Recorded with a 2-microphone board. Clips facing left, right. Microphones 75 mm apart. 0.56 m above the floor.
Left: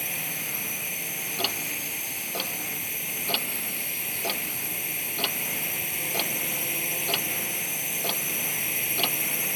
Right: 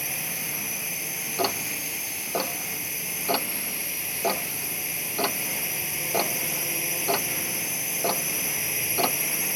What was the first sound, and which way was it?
A drone, 5° right (ahead or behind).